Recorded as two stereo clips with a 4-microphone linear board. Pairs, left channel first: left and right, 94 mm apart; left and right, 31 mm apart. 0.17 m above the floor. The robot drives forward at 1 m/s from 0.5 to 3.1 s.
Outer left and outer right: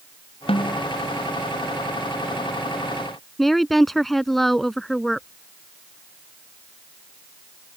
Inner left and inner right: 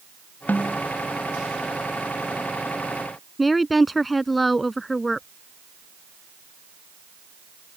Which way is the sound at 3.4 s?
Centre (ahead or behind).